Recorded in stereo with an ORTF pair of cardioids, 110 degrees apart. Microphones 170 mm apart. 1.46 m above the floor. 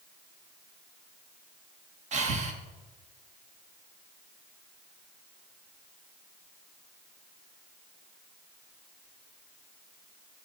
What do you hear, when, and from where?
2.1 s breathing: 45° right, 1.3 m